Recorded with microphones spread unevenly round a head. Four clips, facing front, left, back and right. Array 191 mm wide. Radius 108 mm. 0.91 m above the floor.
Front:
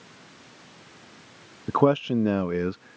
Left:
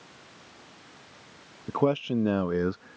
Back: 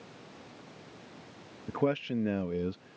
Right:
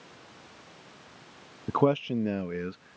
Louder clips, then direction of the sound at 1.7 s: Right 1 dB, front 9 dB; 5° right.